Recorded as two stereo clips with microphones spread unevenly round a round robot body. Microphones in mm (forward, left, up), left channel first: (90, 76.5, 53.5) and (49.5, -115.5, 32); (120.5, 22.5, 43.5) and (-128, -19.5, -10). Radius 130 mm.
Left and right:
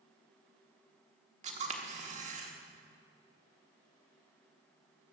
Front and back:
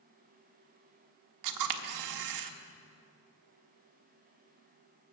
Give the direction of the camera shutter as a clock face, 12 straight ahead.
5 o'clock.